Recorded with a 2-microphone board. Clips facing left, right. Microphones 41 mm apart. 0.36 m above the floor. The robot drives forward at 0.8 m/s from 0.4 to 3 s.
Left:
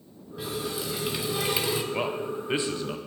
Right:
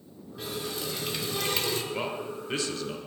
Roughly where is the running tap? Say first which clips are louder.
Left 3 dB; centre.